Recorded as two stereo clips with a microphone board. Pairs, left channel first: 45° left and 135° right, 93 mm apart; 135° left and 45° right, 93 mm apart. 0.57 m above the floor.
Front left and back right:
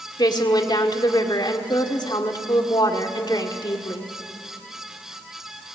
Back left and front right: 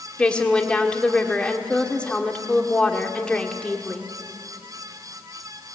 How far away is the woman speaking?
About 1.8 m.